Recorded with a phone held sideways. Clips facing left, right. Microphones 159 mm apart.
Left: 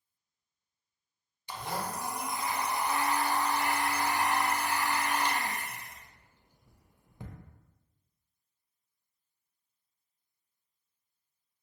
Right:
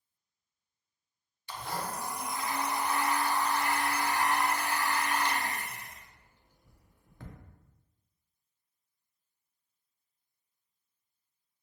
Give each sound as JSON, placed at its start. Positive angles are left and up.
{"t": 1.5, "sound": "a blender", "side_deg": 15, "distance_m": 0.6}